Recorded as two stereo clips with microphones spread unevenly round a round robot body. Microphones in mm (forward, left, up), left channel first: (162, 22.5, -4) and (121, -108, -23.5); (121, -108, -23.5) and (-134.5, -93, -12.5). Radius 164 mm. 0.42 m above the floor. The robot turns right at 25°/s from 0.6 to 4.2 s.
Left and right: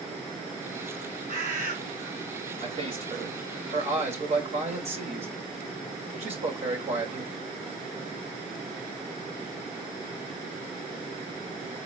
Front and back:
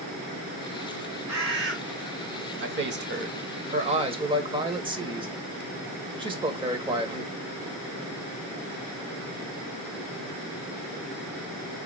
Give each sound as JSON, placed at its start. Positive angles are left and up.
{"t": 1.3, "sound": "a bird", "azimuth_deg": 150, "distance_m": 2.0}
{"t": 2.6, "sound": "a man speaking", "azimuth_deg": -155, "distance_m": 1.7}